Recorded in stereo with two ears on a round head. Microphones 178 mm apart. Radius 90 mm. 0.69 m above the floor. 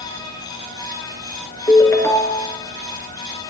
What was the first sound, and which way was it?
A ringtone, 15° left (ahead or behind).